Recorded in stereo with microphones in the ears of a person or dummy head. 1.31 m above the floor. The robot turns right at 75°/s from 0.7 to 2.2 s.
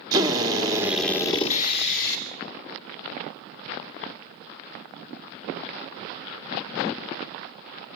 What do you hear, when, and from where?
0.1 s a drill: 20° right, 2.5 m; by 2.2 s 95° left, 2.5 m